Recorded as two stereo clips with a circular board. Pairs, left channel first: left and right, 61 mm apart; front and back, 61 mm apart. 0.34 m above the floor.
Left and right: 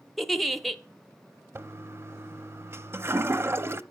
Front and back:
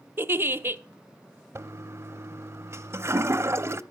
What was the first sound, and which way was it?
A giggle, straight behind.